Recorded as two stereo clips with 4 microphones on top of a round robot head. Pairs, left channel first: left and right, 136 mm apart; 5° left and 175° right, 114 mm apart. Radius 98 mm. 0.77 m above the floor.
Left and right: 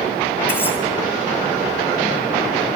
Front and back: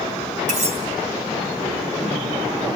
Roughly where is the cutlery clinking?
Behind.